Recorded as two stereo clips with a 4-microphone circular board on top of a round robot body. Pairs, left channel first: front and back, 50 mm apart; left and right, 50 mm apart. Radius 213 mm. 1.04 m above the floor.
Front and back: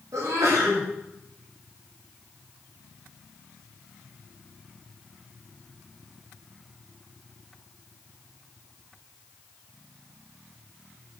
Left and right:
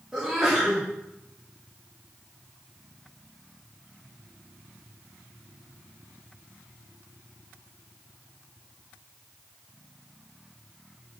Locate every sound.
0.1 s a sneeze: 170° right, 3 m